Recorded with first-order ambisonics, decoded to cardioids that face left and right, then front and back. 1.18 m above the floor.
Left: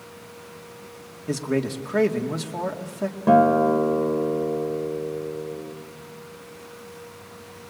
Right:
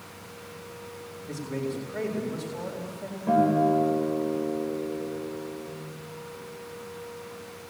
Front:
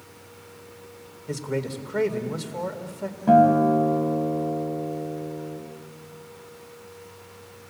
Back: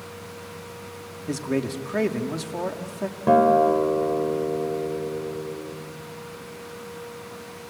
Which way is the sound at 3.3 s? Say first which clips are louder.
Left 5 dB, even; 140° left.